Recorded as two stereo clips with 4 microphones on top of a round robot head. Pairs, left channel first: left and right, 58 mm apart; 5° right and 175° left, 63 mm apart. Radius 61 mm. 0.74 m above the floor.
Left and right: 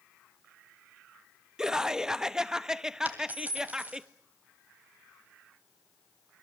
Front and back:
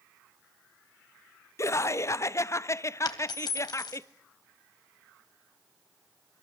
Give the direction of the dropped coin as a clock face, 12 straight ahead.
1 o'clock.